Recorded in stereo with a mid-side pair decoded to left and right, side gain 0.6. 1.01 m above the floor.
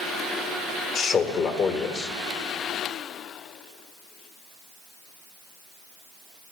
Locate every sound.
0.9 s a man speaking: 45° left, 1.2 m